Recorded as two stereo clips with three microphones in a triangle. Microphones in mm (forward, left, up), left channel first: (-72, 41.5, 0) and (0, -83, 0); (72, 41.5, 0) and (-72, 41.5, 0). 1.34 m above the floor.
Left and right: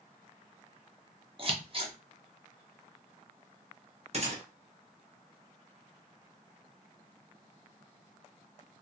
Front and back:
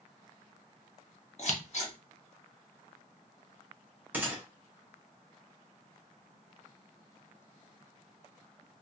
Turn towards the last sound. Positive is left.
turn(degrees=-100)